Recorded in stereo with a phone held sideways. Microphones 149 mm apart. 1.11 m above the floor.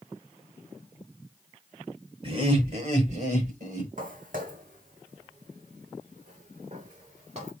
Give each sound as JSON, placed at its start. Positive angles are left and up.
{"t": 2.2, "sound": "laughter", "side_deg": -40, "distance_m": 4.5}
{"t": 4.0, "sound": "footsteps", "side_deg": -65, "distance_m": 3.0}